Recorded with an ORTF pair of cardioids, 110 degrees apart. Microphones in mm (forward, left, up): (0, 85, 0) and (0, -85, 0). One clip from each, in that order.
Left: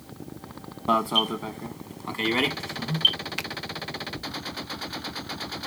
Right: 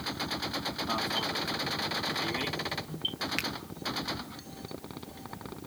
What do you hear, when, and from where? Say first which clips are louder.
0.9 s an alarm: left 10 dB; 70° left
3.4 s a finger snap: left 1 dB; 5° left